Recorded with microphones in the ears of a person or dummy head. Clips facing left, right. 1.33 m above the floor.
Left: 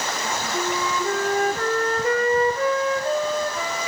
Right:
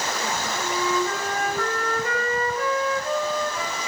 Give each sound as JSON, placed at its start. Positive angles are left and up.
{"t": 0.5, "sound": "a flute", "side_deg": 25, "distance_m": 0.7}